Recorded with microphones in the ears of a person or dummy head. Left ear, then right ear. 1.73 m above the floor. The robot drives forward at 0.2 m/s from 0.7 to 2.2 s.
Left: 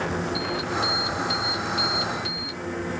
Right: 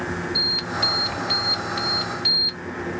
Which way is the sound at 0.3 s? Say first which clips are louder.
Right 8 dB; 40° right (ahead or behind).